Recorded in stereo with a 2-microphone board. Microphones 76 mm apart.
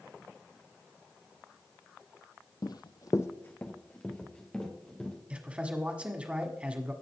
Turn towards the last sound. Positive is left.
turn(degrees=-15)  # may be behind; listen again after turning